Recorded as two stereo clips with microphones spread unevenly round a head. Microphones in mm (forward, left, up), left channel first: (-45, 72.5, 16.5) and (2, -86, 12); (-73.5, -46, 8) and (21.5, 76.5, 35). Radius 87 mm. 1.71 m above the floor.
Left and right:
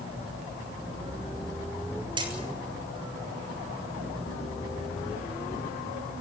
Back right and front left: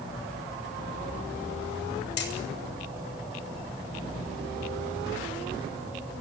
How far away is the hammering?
About 7 m.